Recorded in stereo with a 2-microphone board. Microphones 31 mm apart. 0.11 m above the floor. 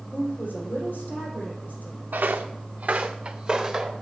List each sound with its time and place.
0.1 s a woman speaking: 65° left (ahead or behind), 3.5 m
2.1 s footsteps: 85° right, 0.7 m; by 3.9 s 15° right (ahead or behind), 1.2 m